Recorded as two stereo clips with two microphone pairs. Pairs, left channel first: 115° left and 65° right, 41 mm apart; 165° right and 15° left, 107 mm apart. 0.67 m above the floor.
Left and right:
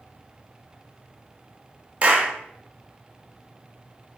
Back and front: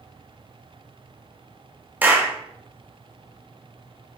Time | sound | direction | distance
2.0 | a clap | 45° right | 0.5 m